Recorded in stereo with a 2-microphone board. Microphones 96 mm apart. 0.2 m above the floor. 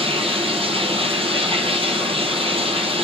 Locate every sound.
0.0 s running water: 85° right, 1.4 m